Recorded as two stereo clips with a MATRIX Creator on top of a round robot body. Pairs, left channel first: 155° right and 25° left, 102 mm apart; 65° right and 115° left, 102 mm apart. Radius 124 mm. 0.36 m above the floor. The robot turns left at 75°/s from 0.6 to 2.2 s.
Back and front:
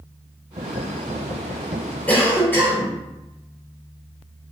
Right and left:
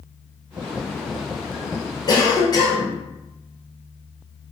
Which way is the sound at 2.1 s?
85° right.